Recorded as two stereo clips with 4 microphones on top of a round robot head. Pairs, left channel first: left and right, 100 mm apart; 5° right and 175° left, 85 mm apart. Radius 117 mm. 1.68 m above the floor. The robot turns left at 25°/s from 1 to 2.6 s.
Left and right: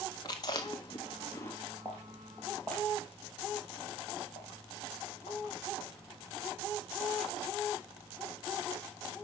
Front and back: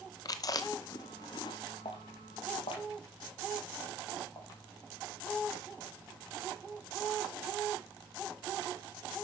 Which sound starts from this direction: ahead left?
Chewing, at 0.2 s.